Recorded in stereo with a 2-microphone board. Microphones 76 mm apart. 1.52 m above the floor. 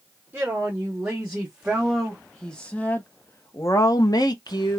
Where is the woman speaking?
25° right (ahead or behind), 1.8 m; by 4.8 s 70° left (ahead or behind), 1.2 m.